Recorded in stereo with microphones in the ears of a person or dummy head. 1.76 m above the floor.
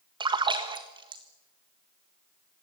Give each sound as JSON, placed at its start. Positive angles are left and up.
{"t": 0.2, "sound": "a splash", "side_deg": -25, "distance_m": 1.5}